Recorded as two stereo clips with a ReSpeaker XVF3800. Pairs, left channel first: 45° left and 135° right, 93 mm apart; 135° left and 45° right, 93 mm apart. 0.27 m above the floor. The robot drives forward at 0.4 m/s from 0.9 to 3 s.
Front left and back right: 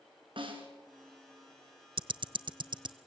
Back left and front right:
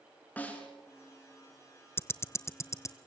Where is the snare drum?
155° right, 4.5 m.